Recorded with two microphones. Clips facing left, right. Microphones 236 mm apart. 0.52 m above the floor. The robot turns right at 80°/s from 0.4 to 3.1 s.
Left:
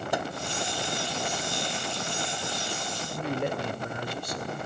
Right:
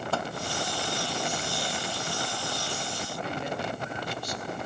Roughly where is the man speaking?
Left.